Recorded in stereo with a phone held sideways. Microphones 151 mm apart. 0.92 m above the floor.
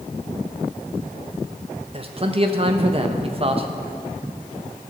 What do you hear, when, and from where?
1.9 s a man speaking: 40° right (ahead or behind), 1.0 m